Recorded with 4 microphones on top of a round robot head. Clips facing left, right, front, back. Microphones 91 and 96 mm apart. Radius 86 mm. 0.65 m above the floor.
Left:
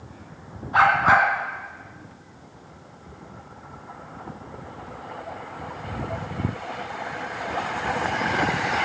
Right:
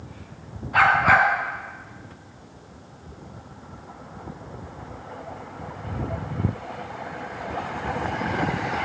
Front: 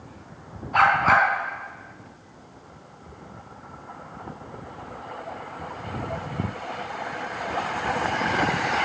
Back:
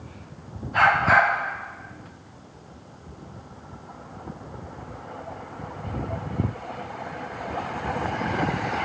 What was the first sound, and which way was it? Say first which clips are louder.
A dog barking: even, even; 30° left.